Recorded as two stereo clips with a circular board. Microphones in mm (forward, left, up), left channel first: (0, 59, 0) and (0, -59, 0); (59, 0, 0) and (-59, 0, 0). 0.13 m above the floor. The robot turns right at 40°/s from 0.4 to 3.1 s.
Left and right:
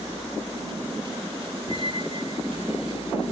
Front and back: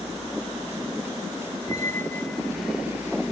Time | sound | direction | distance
1.7 | a squeak | 55° left | ?